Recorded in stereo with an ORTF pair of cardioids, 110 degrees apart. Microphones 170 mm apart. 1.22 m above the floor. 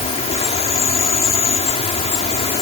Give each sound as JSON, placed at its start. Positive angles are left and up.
{"t": 0.0, "sound": "an insect", "azimuth_deg": 40}